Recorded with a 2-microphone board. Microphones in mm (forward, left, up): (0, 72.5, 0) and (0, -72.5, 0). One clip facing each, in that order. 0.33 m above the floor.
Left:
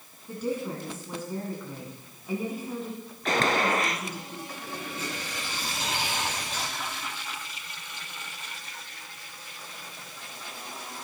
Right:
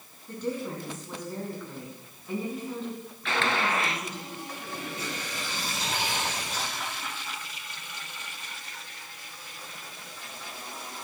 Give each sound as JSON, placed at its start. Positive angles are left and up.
{"t": 0.3, "sound": "a woman speaking", "side_deg": 10, "distance_m": 3.0}
{"t": 3.2, "sound": "a gunshot", "side_deg": 40, "distance_m": 1.0}
{"t": 5.0, "sound": "tearing paper", "side_deg": -35, "distance_m": 7.5}